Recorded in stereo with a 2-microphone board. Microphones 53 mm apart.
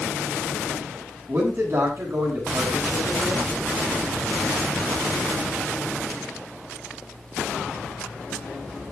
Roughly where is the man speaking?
Right.